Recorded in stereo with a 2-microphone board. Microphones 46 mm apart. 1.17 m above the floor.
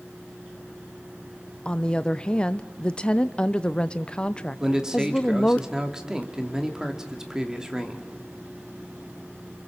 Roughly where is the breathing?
I don't hear breathing.